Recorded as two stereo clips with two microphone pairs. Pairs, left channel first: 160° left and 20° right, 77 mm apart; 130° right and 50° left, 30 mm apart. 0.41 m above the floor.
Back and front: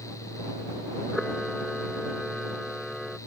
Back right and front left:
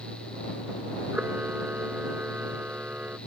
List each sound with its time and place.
1.1 s a camera shutter: 70° left